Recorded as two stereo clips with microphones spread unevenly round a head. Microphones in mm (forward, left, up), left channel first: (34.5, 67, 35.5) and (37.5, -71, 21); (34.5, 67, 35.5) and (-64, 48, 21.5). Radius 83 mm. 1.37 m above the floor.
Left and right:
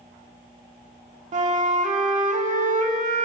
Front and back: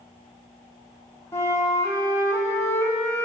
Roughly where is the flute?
Ahead right.